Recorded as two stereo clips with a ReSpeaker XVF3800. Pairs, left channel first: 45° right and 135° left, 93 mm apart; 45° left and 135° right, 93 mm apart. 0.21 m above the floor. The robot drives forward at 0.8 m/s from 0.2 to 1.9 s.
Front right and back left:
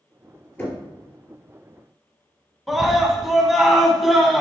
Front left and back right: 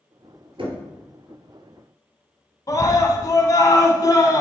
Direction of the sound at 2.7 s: 45° left.